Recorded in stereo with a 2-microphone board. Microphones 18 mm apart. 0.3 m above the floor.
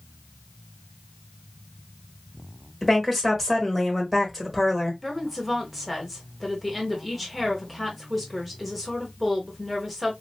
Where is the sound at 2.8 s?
10° right (ahead or behind), 1.3 m.